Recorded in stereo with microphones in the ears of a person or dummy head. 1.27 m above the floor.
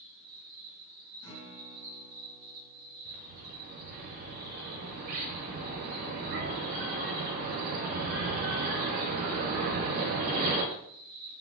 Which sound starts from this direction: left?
A guitar, at 1.2 s.